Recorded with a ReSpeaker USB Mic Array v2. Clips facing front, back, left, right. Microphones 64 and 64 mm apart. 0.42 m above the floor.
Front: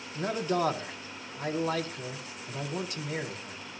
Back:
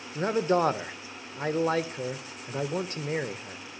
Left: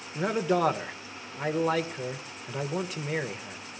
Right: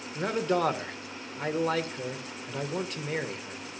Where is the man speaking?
175° left, 1.0 m.